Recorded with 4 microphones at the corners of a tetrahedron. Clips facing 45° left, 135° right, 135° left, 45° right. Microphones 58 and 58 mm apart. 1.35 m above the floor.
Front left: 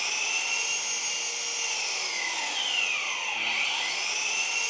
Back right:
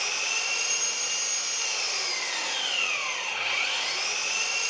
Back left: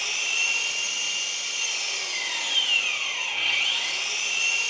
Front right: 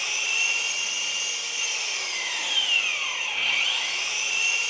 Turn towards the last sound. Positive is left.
turn(degrees=-140)